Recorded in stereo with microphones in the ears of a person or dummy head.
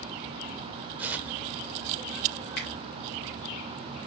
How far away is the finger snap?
About 2.0 m.